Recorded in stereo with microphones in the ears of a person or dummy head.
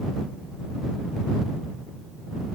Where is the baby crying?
No baby crying in this recording.